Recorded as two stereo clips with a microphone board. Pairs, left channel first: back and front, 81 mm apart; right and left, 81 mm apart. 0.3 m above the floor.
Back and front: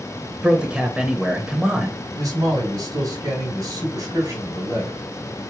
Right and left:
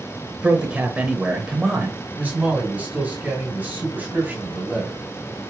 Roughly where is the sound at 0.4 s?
Ahead left.